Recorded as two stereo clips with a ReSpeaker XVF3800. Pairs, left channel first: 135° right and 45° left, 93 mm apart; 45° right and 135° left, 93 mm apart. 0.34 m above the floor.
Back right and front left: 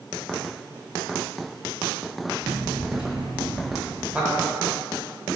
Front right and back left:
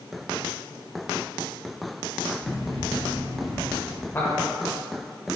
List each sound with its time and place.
2.4 s running footsteps: 5° right, 0.9 m; by 4.0 s 65° left, 1.4 m
4.1 s a man speaking: 10° right, 1.0 m